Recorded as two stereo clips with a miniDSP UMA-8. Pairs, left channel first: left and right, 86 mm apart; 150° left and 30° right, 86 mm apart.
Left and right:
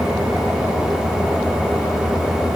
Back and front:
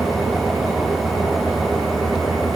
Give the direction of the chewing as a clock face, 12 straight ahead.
No chewing in this recording.